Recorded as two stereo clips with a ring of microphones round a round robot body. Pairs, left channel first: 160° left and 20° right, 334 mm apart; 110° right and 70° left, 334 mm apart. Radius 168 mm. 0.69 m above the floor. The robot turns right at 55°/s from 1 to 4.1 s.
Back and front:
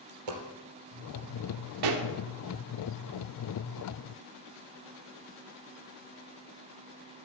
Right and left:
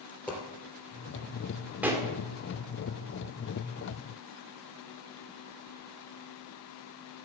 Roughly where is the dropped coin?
Ahead right.